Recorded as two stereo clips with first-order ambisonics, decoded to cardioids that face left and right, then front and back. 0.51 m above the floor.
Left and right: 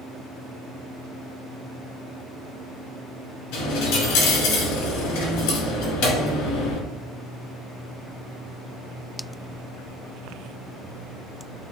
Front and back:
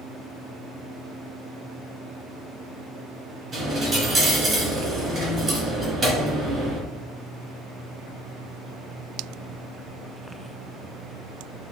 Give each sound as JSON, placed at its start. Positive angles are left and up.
{"t": 3.5, "sound": "a dropped coin", "azimuth_deg": 110, "distance_m": 1.8}